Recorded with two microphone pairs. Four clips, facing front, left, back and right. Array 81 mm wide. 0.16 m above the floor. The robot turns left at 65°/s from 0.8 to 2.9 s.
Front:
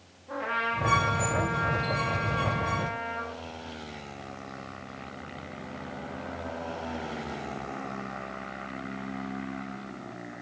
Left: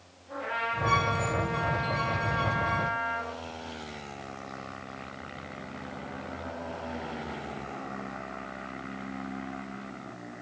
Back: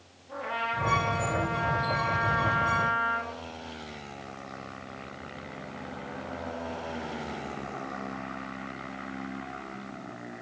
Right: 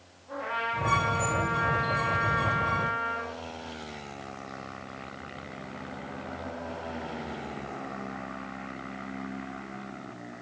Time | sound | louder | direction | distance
0.3 | a trumpet | even, front 2 dB | 10° right | 8 m